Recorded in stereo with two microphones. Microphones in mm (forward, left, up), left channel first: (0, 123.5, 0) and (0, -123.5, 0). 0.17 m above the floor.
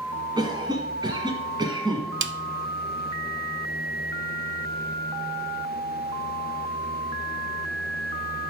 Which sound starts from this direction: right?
A snare drum, at 2.2 s.